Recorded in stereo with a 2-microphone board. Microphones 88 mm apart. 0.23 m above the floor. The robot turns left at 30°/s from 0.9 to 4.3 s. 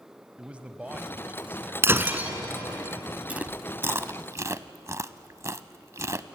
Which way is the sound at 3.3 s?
15° right (ahead or behind).